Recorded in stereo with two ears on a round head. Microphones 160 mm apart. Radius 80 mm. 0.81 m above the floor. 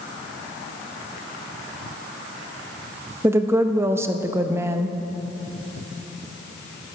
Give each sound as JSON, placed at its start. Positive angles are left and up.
{"t": 3.2, "sound": "a woman speaking", "side_deg": -15, "distance_m": 0.5}